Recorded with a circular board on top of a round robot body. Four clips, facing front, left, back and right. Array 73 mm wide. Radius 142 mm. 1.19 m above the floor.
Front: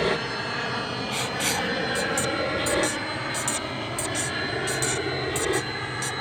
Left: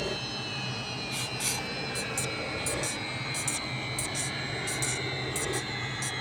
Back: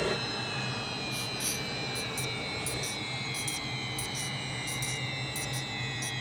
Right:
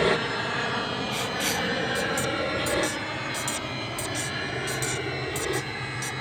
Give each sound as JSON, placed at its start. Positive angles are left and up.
{"t": 0.0, "sound": "an aircraft", "azimuth_deg": -65}
{"t": 1.1, "sound": "writing", "azimuth_deg": -20}